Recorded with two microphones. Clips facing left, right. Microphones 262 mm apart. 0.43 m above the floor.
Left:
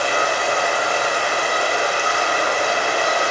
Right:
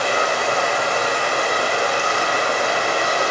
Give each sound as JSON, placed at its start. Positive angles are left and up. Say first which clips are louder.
{"t": 0.0, "sound": "running water", "louder": "right 1 dB", "side_deg": -40, "distance_m": 7.5}